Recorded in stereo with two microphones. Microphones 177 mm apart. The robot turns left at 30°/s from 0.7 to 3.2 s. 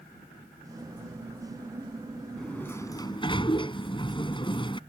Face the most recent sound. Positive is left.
turn(degrees=30)  # may be behind; listen again after turning